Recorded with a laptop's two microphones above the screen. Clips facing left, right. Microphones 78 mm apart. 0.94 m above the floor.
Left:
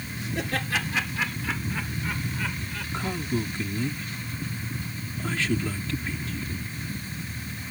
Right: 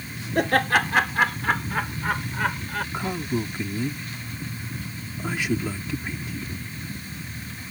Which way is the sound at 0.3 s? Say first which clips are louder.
Right 9 dB; 60° right (ahead or behind).